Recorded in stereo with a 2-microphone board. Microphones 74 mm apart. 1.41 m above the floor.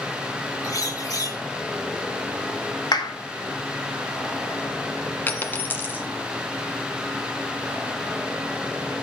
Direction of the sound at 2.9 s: 70° left (ahead or behind).